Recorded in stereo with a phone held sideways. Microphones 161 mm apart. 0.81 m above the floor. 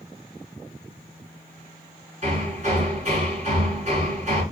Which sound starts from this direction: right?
Hammering, at 2.2 s.